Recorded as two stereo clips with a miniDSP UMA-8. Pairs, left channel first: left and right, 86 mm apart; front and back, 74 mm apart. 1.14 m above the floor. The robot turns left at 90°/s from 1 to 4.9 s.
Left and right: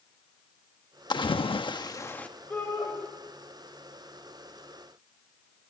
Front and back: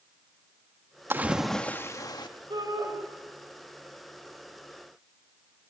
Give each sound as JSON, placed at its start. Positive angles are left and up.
{"t": 1.1, "sound": "a splash", "azimuth_deg": 120, "distance_m": 1.4}
{"t": 2.5, "sound": "a shout", "azimuth_deg": 165, "distance_m": 5.5}